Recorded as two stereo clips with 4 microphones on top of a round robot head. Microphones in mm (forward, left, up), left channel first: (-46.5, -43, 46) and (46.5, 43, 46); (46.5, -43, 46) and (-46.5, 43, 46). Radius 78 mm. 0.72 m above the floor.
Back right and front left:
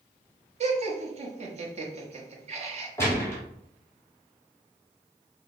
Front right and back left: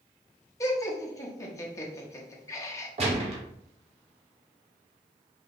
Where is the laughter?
20° left, 1.1 m.